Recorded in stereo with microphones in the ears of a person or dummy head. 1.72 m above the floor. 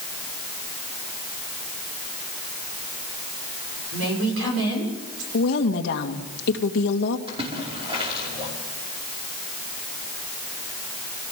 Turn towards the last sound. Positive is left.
turn(degrees=-25)  # may be behind; listen again after turning